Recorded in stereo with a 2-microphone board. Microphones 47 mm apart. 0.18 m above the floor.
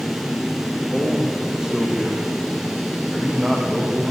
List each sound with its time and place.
0.9 s a man speaking: 15° right (ahead or behind), 7 m